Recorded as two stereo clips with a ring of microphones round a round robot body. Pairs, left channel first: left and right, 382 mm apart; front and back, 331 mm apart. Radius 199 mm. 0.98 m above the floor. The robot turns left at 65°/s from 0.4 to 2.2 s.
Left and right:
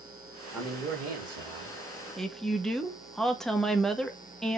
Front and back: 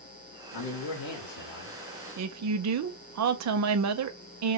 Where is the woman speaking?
Straight behind, 0.7 m.